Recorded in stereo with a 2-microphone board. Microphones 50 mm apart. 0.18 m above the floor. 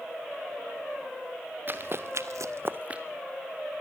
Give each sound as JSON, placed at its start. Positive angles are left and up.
{"t": 1.7, "sound": "running footsteps", "side_deg": -40, "distance_m": 1.4}